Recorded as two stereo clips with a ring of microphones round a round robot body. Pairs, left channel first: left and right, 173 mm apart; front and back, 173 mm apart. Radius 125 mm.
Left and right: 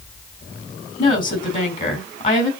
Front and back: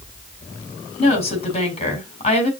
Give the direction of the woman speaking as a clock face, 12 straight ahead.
10 o'clock.